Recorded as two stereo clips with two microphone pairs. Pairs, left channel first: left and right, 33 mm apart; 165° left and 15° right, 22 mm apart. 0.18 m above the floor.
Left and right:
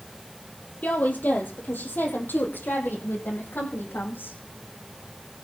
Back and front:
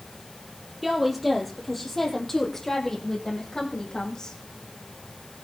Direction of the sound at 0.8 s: 65° left.